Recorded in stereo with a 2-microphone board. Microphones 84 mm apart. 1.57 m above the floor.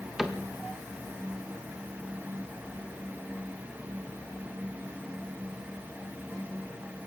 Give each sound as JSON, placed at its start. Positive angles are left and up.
{"t": 0.2, "sound": "a cupboard door", "side_deg": -5, "distance_m": 2.0}